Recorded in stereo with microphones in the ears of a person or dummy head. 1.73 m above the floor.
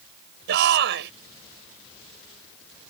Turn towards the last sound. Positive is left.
turn(degrees=-65)  # may be behind; listen again after turning